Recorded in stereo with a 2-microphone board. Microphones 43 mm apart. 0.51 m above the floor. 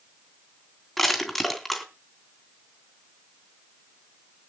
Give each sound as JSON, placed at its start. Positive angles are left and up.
{"t": 1.0, "sound": "crushing", "side_deg": 0, "distance_m": 3.0}